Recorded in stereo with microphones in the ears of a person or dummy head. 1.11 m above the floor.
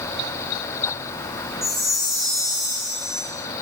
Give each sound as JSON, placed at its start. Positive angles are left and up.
{"t": 1.6, "sound": "a chime", "side_deg": 0, "distance_m": 0.8}